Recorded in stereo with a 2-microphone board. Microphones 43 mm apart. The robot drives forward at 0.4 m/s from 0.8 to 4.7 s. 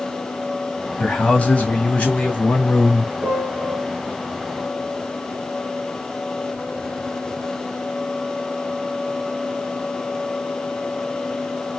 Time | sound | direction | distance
1.0 | a man speaking | 30° left (ahead or behind) | 1.5 m
3.2 | a piano | 20° right (ahead or behind) | 2 m